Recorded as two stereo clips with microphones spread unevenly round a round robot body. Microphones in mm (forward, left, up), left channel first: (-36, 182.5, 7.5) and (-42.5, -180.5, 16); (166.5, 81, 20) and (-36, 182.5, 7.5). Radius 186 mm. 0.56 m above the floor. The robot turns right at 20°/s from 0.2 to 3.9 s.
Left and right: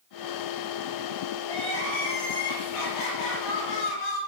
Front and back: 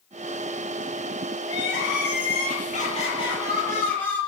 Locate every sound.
1.4 s crying: 10° left, 7 m; by 4.2 s 55° left, 7 m